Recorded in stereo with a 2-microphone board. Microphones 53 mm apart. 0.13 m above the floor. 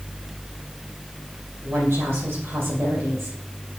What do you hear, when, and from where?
1.6 s a woman speaking: 45° right (ahead or behind), 3.5 m